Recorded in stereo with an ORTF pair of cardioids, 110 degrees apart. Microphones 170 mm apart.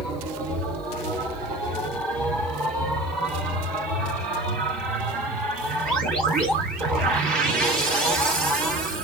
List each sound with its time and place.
0.0 s a machine running: 55° right, 3.5 m